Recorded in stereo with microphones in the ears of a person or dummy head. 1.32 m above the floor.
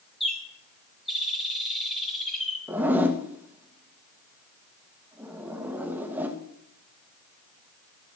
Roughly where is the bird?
Centre.